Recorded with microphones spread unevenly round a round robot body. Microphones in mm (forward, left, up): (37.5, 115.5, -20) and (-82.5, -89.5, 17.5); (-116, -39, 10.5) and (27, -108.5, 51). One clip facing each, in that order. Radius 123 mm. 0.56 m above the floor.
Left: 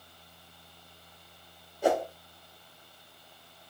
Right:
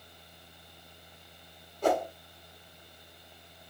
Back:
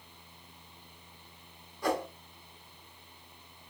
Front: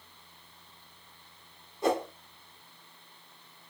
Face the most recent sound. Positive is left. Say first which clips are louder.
# left 1 dB, front 3 dB
turn(degrees=40)